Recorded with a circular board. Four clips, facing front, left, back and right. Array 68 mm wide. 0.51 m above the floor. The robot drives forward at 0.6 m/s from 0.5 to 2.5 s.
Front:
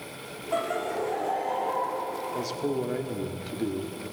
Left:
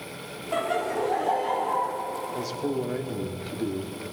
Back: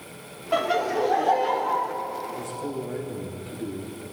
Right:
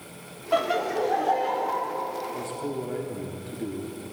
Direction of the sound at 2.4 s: 30° left.